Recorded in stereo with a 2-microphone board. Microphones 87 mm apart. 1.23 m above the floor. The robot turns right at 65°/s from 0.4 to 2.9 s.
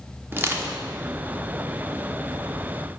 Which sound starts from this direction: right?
Crushing, at 0.3 s.